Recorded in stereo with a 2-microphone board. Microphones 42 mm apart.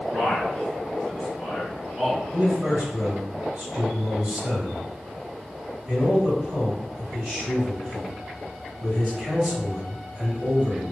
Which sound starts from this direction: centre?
A man speaking, at 0.1 s.